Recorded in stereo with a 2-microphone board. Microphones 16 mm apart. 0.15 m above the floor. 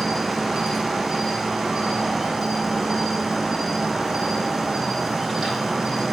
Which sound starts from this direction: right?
An insect, at 0.0 s.